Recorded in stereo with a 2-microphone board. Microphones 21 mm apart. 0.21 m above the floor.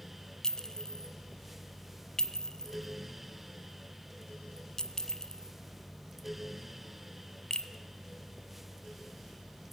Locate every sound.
0.4 s a clink: 30° left (ahead or behind), 1.0 m